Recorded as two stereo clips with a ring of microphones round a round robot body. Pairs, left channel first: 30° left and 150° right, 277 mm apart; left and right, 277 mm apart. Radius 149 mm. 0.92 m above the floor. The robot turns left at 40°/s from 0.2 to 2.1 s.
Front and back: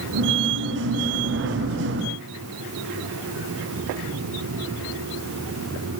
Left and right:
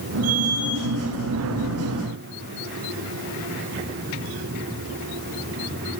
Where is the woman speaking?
No woman speaking in this recording.